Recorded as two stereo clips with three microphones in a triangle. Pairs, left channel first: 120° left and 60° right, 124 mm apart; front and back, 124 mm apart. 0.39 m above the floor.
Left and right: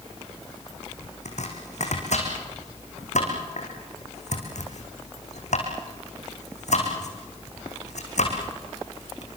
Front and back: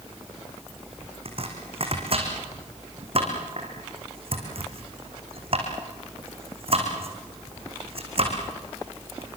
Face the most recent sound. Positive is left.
turn(degrees=140)